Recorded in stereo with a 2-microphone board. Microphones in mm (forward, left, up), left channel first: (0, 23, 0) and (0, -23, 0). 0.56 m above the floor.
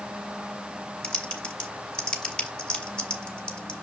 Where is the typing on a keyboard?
20° left (ahead or behind), 1.2 m.